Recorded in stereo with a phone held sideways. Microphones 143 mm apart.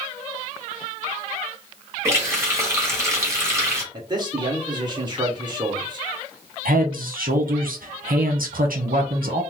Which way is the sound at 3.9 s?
30° right (ahead or behind).